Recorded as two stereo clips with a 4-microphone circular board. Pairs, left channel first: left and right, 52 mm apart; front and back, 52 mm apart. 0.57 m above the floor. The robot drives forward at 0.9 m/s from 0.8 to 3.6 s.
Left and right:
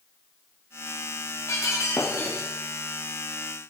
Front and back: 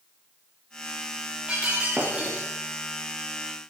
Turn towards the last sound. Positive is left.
turn(degrees=120)